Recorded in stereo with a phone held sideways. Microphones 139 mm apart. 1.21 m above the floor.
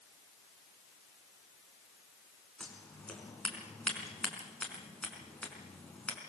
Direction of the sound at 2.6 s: 10° left (ahead or behind).